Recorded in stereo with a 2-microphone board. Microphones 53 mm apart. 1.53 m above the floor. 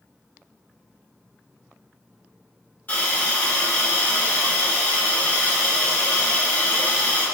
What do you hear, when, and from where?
2.9 s a hiss: 35° left (ahead or behind), 1.4 m